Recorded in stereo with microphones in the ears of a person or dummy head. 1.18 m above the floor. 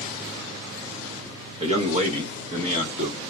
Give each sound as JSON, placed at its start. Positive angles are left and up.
{"t": 1.6, "sound": "a man speaking", "side_deg": -35, "distance_m": 1.4}